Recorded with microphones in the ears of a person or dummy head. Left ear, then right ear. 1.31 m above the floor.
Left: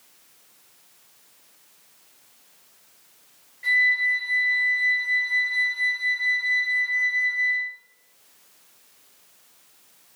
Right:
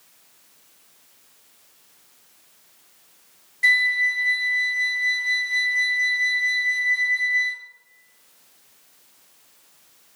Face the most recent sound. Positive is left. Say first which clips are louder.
# right 2 dB
turn(degrees=-75)  # may be behind; listen again after turning